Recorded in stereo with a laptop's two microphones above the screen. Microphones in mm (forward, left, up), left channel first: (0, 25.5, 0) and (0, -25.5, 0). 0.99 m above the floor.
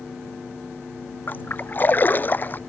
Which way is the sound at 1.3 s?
40° left (ahead or behind).